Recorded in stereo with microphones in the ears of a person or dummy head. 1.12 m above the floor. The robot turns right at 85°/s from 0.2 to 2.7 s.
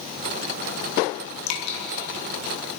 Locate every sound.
1.5 s dripping: 80° left, 1.5 m; by 1.8 s 55° left (ahead or behind), 1.5 m